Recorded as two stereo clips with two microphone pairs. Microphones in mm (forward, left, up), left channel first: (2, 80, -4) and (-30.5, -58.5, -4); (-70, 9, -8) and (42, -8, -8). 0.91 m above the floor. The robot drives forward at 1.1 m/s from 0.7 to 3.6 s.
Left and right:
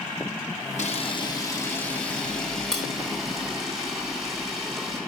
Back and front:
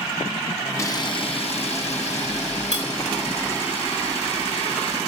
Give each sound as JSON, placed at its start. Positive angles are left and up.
{"t": 0.8, "sound": "a camera shutter", "azimuth_deg": 110, "distance_m": 0.8}